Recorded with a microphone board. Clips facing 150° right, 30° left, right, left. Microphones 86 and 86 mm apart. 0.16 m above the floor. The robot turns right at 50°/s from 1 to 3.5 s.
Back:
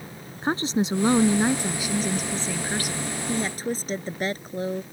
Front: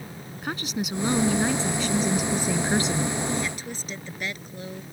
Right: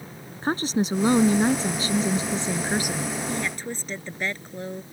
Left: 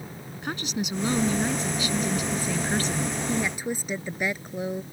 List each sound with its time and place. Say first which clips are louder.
0.4 s a woman speaking: back 6 dB, right 7 dB; 115° right; by 3.1 s 5° right
3.3 s a woman speaking: back 3 dB, left 2 dB; 155° left; by 4.8 s 165° left